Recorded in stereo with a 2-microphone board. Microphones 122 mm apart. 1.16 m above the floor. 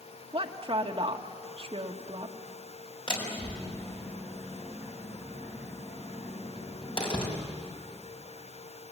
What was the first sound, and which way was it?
A woman speaking, 45° right (ahead or behind).